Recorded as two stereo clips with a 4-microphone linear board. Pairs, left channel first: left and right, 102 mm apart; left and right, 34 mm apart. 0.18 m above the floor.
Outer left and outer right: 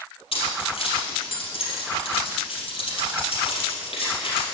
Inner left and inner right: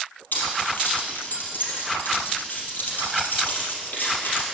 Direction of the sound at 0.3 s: 65° left (ahead or behind).